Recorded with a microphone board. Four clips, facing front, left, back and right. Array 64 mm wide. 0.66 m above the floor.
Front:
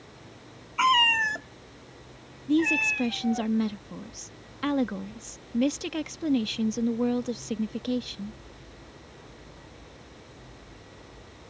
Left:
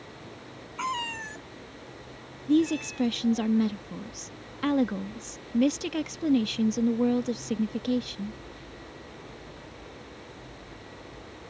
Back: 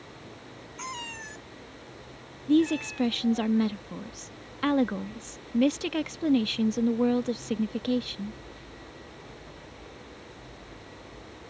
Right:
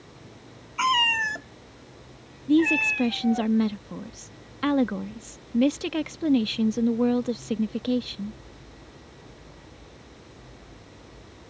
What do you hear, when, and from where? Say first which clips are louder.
0.8 s a cat meowing: right 9 dB, front 17 dB; 25° right; by 3.5 s 60° right
2.5 s a woman speaking: right 3 dB, back 1 dB; 125° right